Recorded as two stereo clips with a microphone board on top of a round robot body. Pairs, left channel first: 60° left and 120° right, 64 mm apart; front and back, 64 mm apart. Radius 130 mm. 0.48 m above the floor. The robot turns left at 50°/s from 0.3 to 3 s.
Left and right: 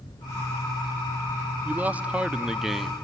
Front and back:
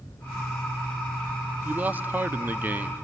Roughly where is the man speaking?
Behind right.